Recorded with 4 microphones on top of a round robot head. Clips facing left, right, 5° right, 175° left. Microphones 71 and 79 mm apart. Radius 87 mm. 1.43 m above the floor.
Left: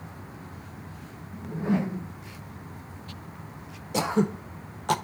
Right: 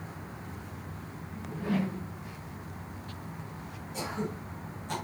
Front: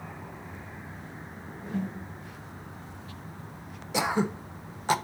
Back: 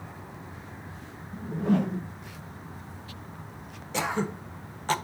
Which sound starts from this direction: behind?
A whoosh, at 1.3 s.